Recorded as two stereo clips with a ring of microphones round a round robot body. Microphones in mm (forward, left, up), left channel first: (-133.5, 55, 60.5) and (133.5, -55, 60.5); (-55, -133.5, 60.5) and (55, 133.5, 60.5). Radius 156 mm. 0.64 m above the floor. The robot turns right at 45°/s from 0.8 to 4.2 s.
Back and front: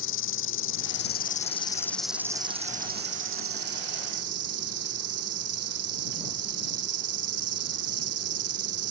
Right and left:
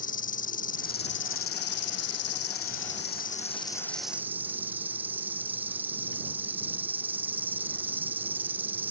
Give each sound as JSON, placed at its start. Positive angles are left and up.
{"t": 0.0, "sound": "an insect", "azimuth_deg": -170}